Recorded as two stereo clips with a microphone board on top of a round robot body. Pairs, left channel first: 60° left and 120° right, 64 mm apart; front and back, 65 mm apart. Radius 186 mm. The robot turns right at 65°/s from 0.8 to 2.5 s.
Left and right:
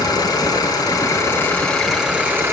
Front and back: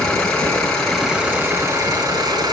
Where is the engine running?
75° left, 5 m; by 2.5 s 175° right, 5 m.